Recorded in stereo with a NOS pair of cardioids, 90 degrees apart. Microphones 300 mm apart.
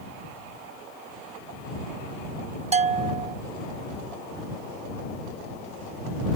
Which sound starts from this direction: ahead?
A bell, at 2.7 s.